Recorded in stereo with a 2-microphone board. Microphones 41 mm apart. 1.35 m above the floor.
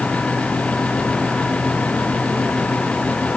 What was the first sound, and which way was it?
Only background noise.